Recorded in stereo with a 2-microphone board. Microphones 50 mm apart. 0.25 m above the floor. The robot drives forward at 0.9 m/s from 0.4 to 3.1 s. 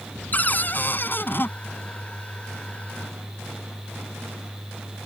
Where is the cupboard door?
35° left (ahead or behind); by 1.5 s 45° left (ahead or behind).